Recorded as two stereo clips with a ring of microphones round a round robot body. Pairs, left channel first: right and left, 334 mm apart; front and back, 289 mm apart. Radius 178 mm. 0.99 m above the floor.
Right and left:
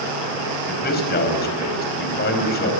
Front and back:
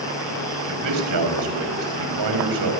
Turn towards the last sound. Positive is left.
turn(degrees=-155)